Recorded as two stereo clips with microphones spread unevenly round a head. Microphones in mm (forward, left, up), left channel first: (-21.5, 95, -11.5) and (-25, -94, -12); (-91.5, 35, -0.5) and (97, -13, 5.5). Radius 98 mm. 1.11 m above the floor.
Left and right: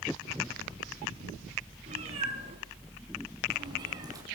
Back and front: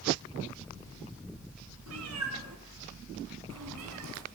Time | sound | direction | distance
1.9 | a cat meowing | 30° right | 7 m